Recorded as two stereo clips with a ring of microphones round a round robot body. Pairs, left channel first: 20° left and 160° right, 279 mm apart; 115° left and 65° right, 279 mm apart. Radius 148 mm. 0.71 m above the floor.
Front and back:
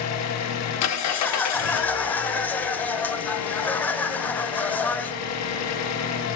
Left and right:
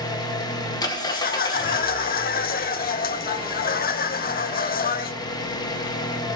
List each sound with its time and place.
0.0 s an engine running: 40° left, 0.9 m
1.1 s laughter: 100° left, 0.5 m